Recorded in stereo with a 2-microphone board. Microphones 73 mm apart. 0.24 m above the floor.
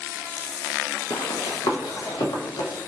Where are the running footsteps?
70° left (ahead or behind), 0.6 m; by 2.7 s 75° left (ahead or behind), 1.6 m.